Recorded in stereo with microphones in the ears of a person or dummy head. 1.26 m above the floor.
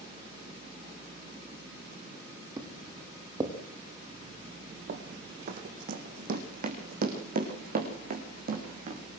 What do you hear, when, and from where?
2.6 s footsteps: 20° right (ahead or behind), 3.5 m
4.9 s running footsteps: 45° right (ahead or behind), 3 m